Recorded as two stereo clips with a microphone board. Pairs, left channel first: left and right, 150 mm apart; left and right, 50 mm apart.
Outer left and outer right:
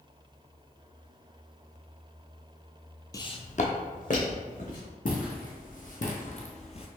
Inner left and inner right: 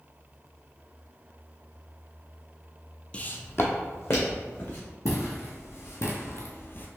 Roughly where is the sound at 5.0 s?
Left.